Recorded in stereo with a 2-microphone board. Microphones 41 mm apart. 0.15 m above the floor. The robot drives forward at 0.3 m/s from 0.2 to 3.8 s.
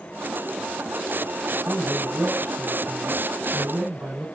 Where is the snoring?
I don't hear snoring.